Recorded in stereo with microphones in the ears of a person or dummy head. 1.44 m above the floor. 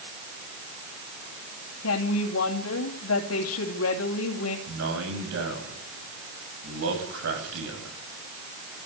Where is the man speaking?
70° right (ahead or behind), 7.5 m.